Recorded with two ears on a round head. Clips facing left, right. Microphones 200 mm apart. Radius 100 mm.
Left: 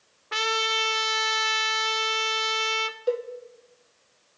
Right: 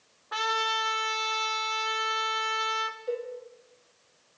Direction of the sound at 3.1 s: 75° left (ahead or behind).